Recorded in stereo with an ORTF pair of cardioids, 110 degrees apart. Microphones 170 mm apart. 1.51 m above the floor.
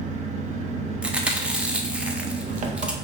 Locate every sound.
0.0 s an engine running: 45° right, 0.8 m
1.0 s chewing: 5° right, 0.7 m